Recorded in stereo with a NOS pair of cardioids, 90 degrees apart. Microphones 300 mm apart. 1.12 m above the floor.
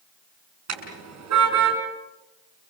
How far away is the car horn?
About 6 m.